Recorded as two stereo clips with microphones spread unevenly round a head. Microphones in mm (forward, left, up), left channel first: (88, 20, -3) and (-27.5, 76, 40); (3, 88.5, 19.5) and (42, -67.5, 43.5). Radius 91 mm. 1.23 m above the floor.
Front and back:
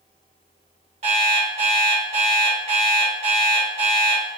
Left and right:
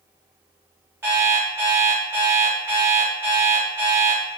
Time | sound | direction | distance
1.0 | an alarm clock | 150° right | 2.5 m